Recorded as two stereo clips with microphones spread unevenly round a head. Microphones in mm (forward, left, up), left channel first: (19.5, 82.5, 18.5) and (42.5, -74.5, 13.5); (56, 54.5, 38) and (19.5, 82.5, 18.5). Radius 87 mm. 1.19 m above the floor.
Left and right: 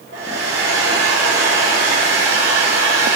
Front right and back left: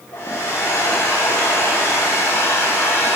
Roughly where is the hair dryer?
Right.